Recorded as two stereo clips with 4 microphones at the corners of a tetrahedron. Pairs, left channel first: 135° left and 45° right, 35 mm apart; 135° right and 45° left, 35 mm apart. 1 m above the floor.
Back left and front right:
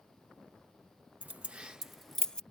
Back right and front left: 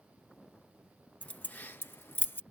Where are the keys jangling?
85° right; by 2.4 s 160° right.